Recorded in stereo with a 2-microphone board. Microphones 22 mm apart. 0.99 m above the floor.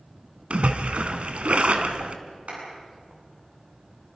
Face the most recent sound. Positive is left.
turn(degrees=-80)